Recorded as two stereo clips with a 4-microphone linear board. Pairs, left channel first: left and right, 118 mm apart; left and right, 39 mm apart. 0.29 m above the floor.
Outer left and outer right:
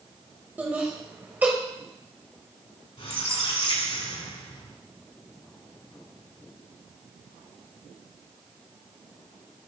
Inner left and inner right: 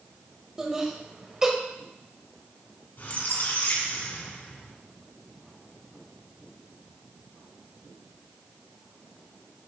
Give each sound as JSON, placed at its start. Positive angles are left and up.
{"t": 0.6, "sound": "laughter", "side_deg": -15, "distance_m": 1.2}
{"t": 3.0, "sound": "a squeak", "side_deg": 65, "distance_m": 1.8}